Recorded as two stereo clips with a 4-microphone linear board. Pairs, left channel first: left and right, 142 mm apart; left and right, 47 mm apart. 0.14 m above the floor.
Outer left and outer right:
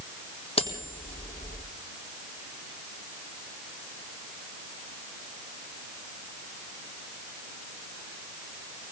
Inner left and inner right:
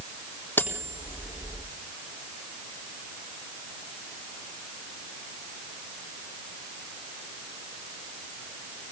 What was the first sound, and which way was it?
Cutlery clinking, 40° left (ahead or behind).